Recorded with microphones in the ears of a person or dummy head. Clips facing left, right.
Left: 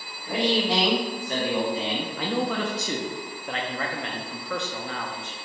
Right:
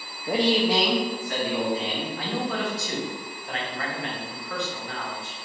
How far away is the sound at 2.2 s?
About 0.8 m.